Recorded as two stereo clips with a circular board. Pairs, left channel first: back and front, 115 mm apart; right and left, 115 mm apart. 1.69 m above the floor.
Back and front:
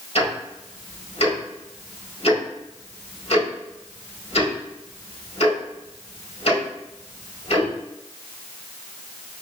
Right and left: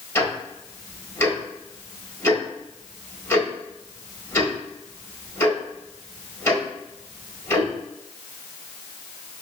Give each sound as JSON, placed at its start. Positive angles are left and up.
{"t": 0.1, "sound": "ticking", "azimuth_deg": -155, "distance_m": 1.6}